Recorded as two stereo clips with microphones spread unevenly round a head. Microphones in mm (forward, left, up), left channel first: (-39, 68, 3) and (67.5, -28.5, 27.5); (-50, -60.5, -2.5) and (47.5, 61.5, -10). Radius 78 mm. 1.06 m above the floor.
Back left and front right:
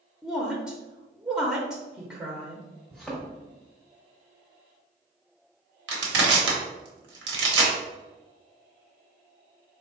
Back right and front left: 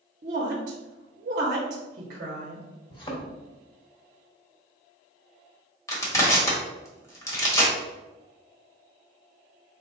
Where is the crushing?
55° right, 1.0 m.